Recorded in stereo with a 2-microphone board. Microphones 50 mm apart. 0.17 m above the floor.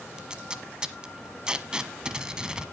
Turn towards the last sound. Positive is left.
turn(degrees=-15)  # may be behind; listen again after turning